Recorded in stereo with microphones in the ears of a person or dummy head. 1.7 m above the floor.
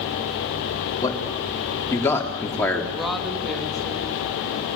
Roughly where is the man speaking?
Centre.